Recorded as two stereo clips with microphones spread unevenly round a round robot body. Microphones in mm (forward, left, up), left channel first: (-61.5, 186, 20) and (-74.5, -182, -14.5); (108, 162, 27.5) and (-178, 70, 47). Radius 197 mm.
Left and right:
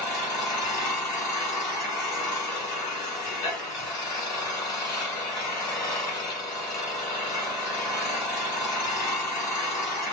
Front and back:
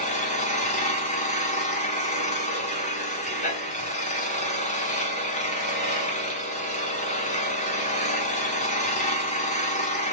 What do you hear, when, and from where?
0.0 s an engine running: 65° left, 1.3 m